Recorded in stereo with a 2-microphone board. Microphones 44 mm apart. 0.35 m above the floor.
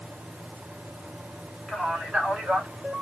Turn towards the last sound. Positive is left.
turn(degrees=-30)  # may be behind; listen again after turning